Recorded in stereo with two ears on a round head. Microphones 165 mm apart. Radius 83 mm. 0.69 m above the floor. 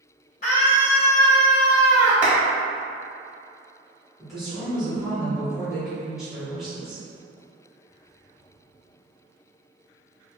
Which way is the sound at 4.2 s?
Centre (ahead or behind).